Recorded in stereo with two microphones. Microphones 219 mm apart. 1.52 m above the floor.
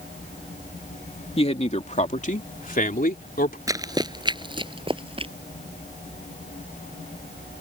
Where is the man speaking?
30° left (ahead or behind); by 3.6 s 45° left (ahead or behind).